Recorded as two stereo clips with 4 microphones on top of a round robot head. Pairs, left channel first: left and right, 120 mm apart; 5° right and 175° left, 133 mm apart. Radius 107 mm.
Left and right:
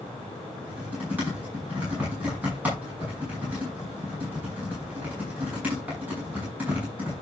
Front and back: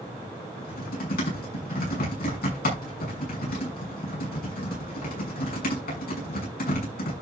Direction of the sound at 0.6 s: 10° right.